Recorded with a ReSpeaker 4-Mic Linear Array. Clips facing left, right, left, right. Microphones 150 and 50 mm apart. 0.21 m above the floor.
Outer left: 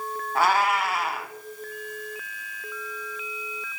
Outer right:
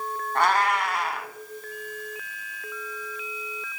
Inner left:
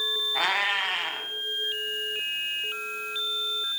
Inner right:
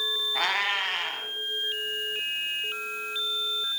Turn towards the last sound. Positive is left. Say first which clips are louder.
# outer left 1 dB, inner left 1 dB
turn(degrees=5)  # may be behind; listen again after turning